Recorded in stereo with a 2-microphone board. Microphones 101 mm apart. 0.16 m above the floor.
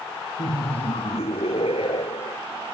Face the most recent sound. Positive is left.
turn(degrees=65)  # may be behind; listen again after turning